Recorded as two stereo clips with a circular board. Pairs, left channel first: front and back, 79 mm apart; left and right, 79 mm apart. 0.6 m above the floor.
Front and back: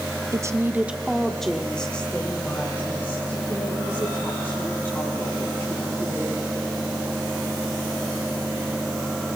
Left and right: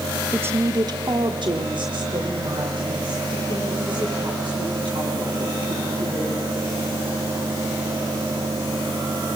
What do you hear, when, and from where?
0.3 s a woman speaking: 155° right, 0.8 m; by 6.4 s 60° right, 6.5 m